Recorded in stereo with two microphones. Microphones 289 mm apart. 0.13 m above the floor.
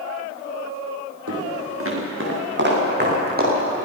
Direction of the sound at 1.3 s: 55° right (ahead or behind).